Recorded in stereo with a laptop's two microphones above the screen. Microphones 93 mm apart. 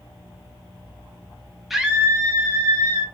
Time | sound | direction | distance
1.7 | a scream | centre (ahead or behind) | 0.8 m